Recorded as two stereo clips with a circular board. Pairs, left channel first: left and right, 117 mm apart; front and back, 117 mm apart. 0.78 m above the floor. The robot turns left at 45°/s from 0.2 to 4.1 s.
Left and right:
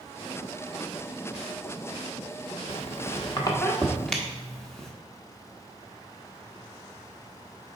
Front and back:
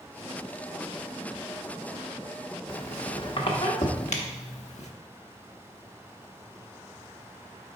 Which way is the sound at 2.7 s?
70° left.